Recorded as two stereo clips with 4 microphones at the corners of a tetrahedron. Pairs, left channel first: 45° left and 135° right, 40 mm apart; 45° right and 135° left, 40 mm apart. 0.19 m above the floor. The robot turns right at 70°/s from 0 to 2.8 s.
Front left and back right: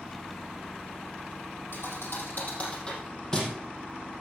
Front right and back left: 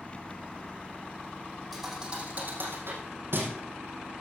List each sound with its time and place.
1.7 s a thud: 40° left, 4 m; by 3.5 s 115° left, 4 m